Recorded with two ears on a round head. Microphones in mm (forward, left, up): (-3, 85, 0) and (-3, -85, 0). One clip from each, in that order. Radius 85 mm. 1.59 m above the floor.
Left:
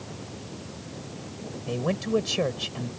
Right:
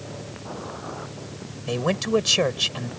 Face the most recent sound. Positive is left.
turn(degrees=-40)  # may be behind; listen again after turning